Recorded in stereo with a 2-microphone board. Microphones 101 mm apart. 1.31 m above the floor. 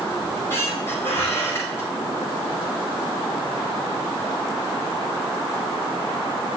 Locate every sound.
0.2 s a squeak: 25° left (ahead or behind), 4.5 m